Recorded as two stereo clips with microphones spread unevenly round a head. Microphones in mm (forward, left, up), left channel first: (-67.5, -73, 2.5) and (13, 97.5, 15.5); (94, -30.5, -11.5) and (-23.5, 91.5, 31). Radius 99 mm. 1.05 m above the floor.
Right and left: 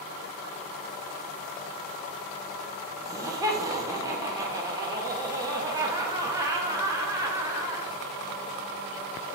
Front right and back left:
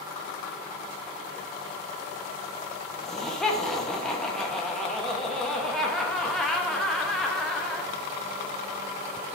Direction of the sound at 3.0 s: 5° left.